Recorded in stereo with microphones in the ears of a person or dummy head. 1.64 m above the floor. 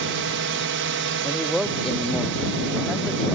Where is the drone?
60° right (ahead or behind).